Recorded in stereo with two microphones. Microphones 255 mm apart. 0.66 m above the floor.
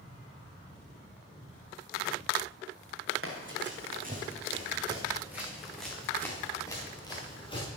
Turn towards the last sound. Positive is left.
turn(degrees=20)  # may be behind; listen again after turning